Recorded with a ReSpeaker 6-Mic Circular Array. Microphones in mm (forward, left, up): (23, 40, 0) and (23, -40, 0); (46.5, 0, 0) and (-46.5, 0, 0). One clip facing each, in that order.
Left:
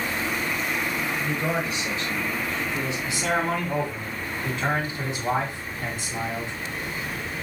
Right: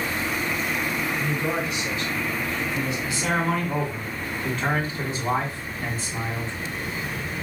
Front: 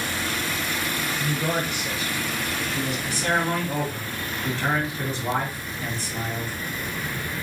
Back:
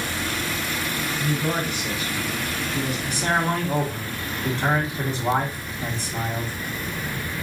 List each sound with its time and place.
1.2 s a man speaking: 65° left, 1.9 m; by 3.0 s 125° left, 1.8 m
3.1 s a man speaking: 130° left, 1.6 m